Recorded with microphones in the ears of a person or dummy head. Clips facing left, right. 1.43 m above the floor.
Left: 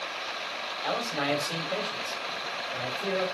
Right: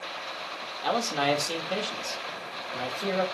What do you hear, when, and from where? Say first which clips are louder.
0.8 s a man speaking: right 4 dB; 55° right (ahead or behind), 3.5 m